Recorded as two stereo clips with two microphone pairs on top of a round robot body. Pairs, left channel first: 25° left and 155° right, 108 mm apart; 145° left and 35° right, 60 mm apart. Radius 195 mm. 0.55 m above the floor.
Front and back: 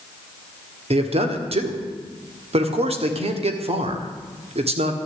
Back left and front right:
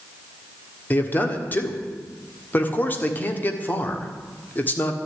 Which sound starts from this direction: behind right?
A man speaking, at 0.9 s.